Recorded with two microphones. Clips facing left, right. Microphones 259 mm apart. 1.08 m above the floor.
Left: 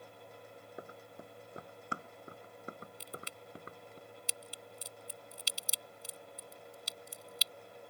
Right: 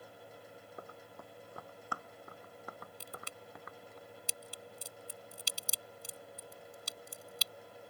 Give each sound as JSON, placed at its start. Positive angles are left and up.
{"t": 0.8, "sound": "running footsteps", "side_deg": 15}
{"t": 3.0, "sound": "a crack", "side_deg": -50}